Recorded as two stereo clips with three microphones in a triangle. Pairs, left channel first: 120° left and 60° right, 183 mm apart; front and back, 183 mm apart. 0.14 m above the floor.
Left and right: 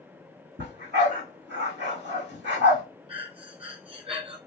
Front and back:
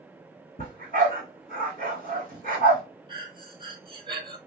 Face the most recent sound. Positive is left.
turn(degrees=-115)